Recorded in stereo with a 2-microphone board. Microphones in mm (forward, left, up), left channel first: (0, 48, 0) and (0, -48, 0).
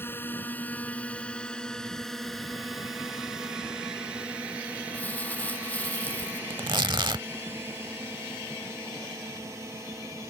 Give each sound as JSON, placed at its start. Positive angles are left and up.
{"t": 0.0, "sound": "a drone", "side_deg": 25}
{"t": 4.9, "sound": "crumpling", "side_deg": 15}
{"t": 6.5, "sound": "tearing paper", "side_deg": -55}